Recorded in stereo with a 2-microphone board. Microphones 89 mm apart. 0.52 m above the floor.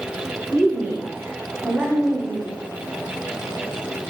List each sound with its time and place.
0.5 s a woman speaking: 20° right (ahead or behind), 1.0 m; by 2.6 s 5° right (ahead or behind), 1.6 m